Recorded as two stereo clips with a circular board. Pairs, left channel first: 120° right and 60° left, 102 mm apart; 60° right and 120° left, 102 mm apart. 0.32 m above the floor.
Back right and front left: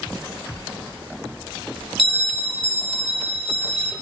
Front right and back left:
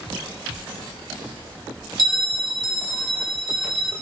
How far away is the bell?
About 0.8 m.